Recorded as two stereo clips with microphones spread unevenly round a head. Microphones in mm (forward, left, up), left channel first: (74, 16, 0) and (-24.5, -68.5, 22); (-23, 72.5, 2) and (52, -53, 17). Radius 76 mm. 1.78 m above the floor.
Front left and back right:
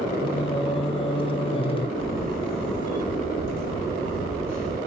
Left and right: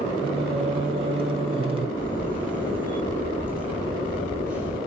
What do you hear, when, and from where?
0.2 s singing: 10° right, 1.4 m
2.0 s a camera shutter: 20° left, 4 m